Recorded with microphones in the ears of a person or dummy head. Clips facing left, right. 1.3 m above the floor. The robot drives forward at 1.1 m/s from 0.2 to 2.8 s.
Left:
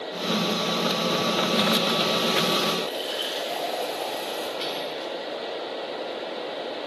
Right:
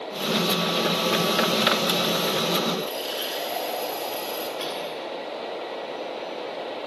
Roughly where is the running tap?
Right.